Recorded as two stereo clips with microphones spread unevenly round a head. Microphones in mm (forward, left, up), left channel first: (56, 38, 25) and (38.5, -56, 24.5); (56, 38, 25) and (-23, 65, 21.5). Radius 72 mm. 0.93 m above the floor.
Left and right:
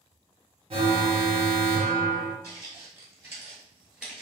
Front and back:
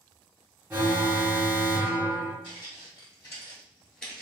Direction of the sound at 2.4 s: 55° right.